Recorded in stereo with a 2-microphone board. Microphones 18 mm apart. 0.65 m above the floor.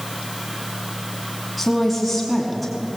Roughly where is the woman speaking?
Centre.